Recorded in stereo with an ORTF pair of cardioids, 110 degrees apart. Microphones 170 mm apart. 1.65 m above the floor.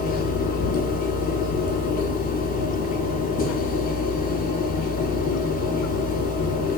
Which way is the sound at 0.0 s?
60° left.